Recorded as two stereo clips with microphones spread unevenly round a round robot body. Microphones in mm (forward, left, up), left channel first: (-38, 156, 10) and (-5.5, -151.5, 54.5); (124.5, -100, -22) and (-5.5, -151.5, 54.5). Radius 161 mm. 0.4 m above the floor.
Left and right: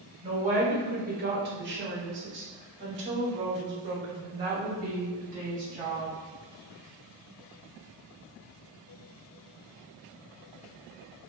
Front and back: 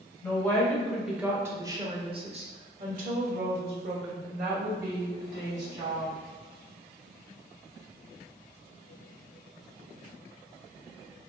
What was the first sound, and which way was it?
A woman speaking, 10° right.